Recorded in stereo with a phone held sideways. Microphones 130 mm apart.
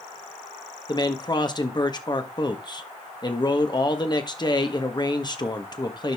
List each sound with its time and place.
0.9 s a man speaking: 35° left (ahead or behind), 1.4 m